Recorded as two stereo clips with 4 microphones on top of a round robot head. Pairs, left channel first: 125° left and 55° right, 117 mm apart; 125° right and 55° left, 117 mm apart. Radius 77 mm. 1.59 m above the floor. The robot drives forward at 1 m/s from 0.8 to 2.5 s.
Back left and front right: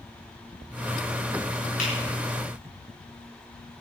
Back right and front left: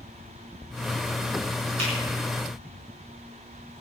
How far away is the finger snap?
About 8.5 m.